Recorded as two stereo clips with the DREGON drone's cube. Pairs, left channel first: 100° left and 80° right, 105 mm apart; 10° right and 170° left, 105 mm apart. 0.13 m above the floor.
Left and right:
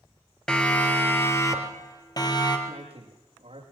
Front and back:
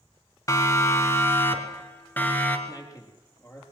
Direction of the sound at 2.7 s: 70° right.